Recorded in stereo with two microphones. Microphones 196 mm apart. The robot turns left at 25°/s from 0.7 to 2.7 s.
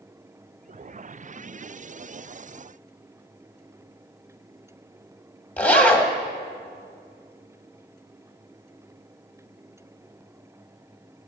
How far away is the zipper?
About 1.3 m.